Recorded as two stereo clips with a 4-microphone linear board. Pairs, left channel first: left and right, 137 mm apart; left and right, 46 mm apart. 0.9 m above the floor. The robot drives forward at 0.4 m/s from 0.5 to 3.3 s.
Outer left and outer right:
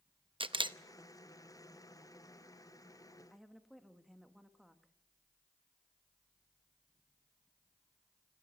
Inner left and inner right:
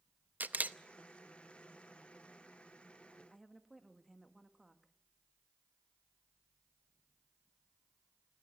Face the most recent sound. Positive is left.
turn(degrees=0)  # may be behind; listen again after turning